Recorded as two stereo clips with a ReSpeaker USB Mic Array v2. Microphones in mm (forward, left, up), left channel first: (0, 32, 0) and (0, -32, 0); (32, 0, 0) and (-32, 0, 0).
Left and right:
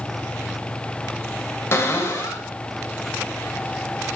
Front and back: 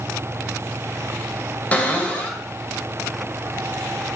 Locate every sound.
1.7 s a cupboard door: 55° left, 2 m